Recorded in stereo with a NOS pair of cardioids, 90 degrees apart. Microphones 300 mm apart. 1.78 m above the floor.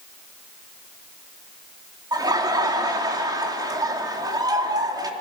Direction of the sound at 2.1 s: 15° right.